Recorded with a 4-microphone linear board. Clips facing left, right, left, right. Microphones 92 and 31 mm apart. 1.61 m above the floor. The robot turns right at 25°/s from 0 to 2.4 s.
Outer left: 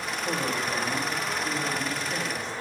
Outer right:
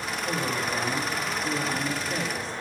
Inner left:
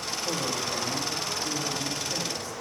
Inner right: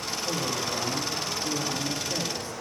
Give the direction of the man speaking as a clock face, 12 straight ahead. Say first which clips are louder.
Even, even; 7 o'clock.